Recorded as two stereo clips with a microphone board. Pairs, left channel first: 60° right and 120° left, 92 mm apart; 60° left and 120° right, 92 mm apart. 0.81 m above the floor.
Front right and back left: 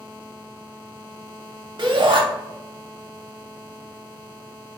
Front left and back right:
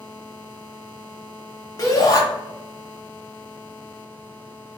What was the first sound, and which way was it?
A shout, 105° left.